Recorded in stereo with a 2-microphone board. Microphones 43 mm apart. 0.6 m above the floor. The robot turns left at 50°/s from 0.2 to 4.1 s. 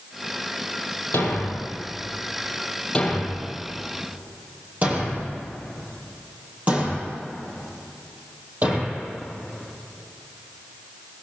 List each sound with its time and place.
1.1 s a thud: 65° left (ahead or behind), 5.5 m; by 9.0 s 35° right (ahead or behind), 5.5 m